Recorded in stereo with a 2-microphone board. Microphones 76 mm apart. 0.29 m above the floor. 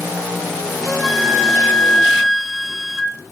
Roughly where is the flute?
Centre.